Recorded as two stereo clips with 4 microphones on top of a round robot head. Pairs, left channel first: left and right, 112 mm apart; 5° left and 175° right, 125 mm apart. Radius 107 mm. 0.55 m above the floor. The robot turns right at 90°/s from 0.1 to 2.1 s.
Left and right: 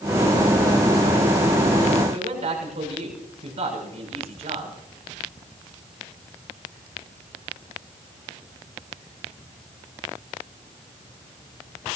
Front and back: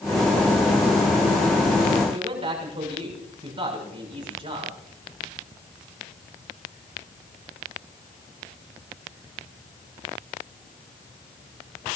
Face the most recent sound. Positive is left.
turn(degrees=-125)